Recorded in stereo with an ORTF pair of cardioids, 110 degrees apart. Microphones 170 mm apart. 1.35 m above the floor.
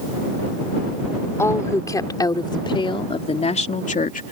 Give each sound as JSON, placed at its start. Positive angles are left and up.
{"t": 1.4, "sound": "a woman speaking", "azimuth_deg": 15}